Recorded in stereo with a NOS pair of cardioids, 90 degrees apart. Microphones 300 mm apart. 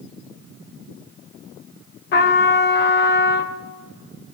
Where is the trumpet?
40° left, 0.5 m.